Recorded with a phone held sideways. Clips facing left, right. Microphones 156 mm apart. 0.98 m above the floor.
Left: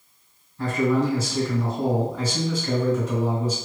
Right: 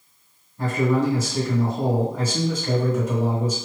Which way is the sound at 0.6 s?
50° right (ahead or behind).